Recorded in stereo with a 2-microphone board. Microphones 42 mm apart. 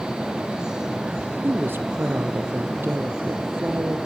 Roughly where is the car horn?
No car horn in this recording.